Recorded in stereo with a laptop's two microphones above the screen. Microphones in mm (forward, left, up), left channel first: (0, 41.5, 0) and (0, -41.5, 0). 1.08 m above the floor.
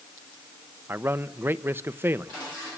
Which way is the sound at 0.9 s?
25° right (ahead or behind).